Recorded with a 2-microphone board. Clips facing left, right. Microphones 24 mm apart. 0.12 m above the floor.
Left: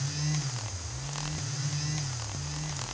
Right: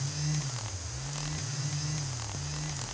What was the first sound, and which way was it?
Only background noise.